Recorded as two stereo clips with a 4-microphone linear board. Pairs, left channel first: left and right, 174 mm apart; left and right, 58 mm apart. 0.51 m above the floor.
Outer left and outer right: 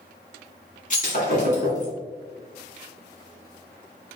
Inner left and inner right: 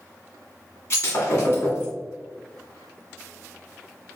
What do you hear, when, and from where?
0.9 s breaking glass: 45° left (ahead or behind), 1.9 m